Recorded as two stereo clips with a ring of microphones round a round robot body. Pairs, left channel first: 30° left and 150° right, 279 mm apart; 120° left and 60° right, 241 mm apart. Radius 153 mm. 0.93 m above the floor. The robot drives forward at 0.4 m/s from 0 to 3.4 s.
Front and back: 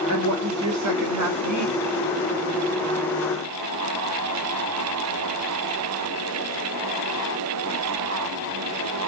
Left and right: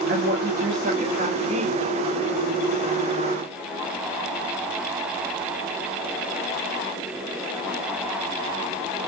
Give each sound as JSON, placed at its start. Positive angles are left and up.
{"t": 0.1, "sound": "a woman speaking", "azimuth_deg": -115, "distance_m": 2.5}